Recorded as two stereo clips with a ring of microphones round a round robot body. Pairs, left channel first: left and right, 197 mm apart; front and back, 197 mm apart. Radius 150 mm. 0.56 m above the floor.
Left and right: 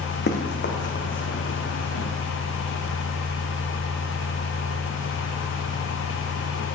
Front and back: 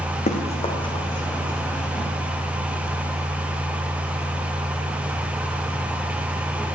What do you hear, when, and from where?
0.3 s running footsteps: 55° left, 2.0 m; by 2.1 s 85° left, 2.5 m